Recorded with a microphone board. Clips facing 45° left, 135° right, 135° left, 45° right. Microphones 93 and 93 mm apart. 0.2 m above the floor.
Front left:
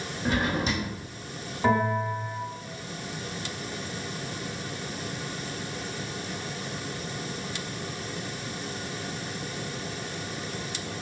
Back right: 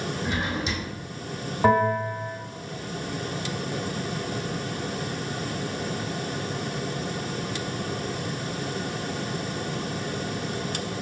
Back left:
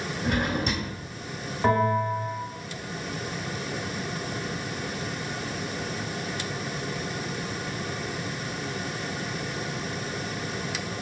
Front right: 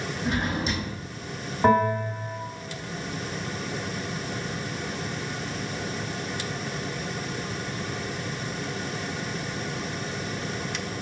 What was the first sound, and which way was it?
A drawer, 100° left.